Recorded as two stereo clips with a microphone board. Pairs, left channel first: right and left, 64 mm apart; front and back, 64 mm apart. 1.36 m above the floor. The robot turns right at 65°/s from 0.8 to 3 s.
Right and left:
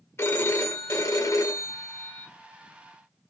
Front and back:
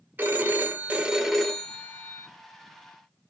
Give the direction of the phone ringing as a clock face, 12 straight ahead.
4 o'clock.